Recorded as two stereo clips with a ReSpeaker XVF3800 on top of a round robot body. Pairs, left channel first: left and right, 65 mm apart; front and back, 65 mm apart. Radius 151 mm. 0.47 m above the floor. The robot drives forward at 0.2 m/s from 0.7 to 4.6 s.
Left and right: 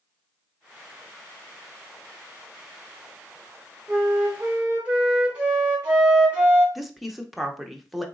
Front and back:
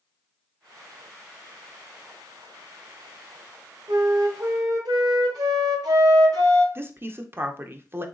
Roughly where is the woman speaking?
Behind.